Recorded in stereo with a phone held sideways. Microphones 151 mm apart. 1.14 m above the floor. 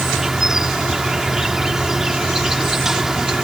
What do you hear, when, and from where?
0.0 s an insect: 5° right (ahead or behind)